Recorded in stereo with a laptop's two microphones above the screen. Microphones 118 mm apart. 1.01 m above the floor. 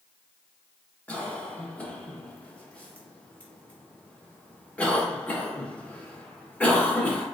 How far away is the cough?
About 1.1 m.